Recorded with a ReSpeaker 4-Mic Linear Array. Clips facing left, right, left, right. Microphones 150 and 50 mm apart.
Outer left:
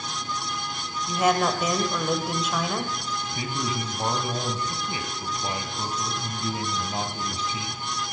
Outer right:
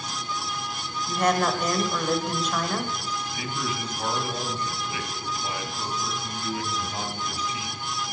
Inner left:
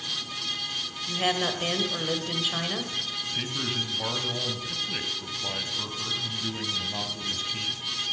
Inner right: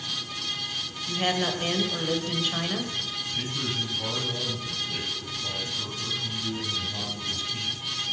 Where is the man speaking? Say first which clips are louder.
Outer left 3 dB, even; 30° left (ahead or behind), 1.9 m.